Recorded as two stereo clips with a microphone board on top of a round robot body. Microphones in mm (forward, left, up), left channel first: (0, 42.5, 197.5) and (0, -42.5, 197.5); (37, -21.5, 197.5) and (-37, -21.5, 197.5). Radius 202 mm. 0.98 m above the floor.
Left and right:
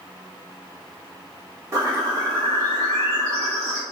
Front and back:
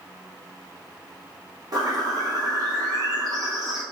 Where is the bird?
140° right, 1.9 m.